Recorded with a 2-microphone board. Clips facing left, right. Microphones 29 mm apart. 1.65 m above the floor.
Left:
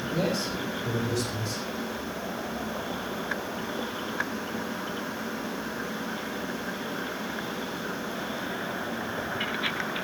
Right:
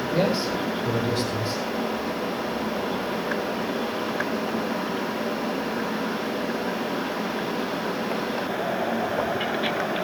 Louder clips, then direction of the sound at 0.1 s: Right 5 dB; 40° right (ahead or behind).